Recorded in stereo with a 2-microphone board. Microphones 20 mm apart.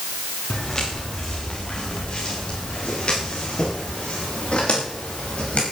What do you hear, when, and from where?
0.5 s footsteps: 35° left (ahead or behind), 5.5 m; by 5.6 s 70° left (ahead or behind), 8.5 m